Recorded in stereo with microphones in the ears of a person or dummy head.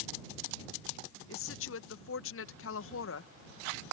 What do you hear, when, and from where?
1.3 s a woman speaking: 70° left (ahead or behind)